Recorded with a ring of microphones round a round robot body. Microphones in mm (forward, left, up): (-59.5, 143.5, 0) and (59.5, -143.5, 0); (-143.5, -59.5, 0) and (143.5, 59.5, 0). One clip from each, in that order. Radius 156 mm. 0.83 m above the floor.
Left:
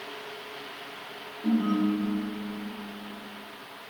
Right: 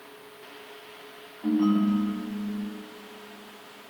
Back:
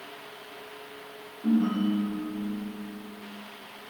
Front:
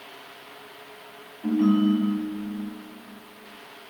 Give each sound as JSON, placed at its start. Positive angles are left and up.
{"t": 1.4, "sound": "a ringtone", "azimuth_deg": -20, "distance_m": 5.0}